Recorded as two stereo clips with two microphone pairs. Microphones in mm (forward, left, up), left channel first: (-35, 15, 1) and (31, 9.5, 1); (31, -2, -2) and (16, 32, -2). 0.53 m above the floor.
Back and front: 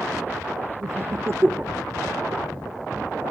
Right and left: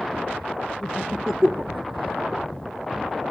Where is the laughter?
5° left, 1.2 m; by 2.2 s 100° left, 1.6 m.